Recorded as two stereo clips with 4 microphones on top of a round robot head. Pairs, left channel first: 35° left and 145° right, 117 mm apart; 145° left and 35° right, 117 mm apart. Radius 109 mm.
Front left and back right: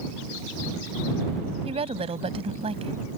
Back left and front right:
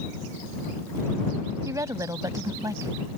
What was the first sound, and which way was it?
A woman speaking, 100° right.